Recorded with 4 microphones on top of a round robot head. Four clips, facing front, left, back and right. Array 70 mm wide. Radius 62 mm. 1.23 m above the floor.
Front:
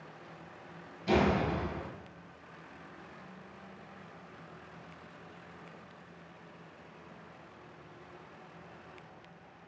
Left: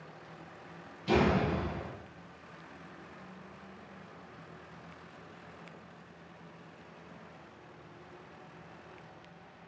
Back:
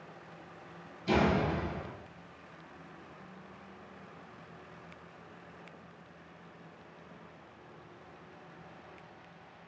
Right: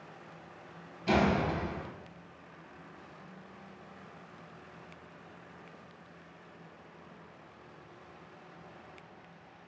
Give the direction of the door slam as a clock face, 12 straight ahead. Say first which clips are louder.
Even, even; 3 o'clock.